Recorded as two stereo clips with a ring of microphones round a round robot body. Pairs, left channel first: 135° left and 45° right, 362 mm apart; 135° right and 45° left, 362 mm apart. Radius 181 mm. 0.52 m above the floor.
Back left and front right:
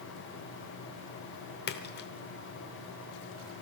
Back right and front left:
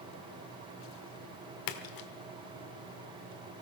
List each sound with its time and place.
1.7 s a splash: 165° right, 1.0 m